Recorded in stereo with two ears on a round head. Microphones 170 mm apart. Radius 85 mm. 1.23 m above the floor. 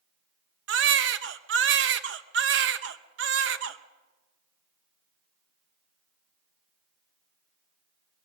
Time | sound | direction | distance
0.7 | a baby crying | 65° right (ahead or behind) | 0.8 m